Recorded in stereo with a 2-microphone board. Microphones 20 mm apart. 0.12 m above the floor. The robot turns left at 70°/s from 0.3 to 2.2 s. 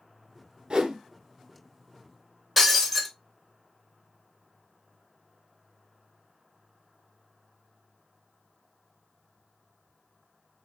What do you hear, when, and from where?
0.7 s a whoosh: 45° right (ahead or behind), 0.9 m
2.6 s breaking glass: centre (ahead or behind), 1.4 m